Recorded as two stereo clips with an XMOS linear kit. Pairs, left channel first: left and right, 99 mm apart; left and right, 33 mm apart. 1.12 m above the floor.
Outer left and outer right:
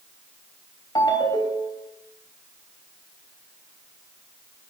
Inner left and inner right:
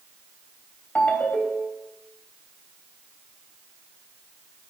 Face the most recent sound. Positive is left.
turn(degrees=50)  # may be behind; listen again after turning